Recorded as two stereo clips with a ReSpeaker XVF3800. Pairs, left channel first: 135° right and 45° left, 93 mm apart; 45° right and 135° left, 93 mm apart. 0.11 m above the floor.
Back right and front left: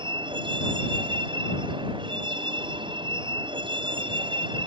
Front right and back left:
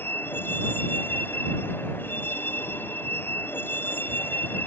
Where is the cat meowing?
No cat meowing in this recording.